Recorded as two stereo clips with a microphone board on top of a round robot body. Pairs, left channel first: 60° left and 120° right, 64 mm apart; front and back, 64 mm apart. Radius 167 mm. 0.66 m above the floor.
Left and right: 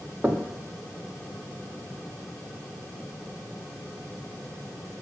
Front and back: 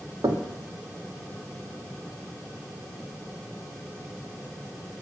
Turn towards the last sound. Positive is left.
turn(degrees=175)